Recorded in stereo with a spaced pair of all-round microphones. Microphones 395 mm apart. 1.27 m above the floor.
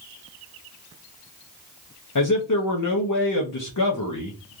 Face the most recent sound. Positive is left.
turn(degrees=50)  # may be behind; listen again after turning